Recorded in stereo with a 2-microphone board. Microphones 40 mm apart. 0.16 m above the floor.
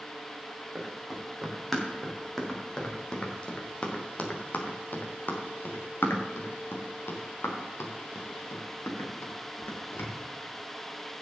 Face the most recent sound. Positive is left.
turn(degrees=75)  # may be behind; listen again after turning